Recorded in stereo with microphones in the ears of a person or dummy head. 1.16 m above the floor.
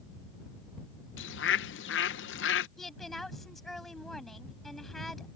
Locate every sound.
1.2 s a bird: 60° left (ahead or behind)
2.8 s a woman speaking: centre (ahead or behind)